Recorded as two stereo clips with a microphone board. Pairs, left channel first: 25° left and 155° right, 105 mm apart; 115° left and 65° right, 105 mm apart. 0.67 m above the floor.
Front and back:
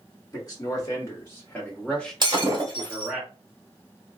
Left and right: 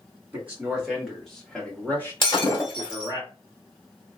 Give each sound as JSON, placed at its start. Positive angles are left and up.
{"t": 0.3, "sound": "a man speaking", "azimuth_deg": 0, "distance_m": 1.4}
{"t": 2.2, "sound": "breaking glass", "azimuth_deg": 155, "distance_m": 1.7}